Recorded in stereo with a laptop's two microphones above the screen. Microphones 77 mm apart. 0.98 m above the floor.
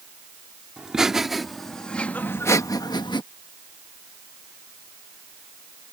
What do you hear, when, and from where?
0.8 s laughter: 10° right (ahead or behind); by 3.2 s 75° left (ahead or behind)